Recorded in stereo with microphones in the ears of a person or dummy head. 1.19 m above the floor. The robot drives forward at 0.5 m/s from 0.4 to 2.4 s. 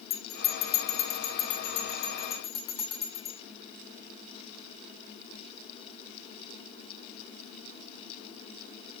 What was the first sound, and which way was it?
A bell, 70° left (ahead or behind).